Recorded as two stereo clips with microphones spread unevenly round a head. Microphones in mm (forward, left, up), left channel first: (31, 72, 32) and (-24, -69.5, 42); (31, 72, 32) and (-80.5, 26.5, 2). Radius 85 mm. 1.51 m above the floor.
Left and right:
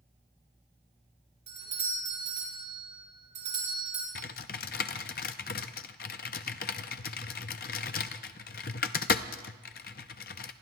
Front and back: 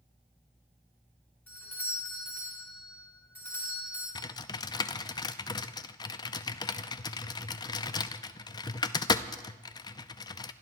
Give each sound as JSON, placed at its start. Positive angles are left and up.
{"t": 1.5, "sound": "a doorbell", "azimuth_deg": -60, "distance_m": 5.0}
{"t": 4.2, "sound": "typing on a keyboard", "azimuth_deg": 50, "distance_m": 0.6}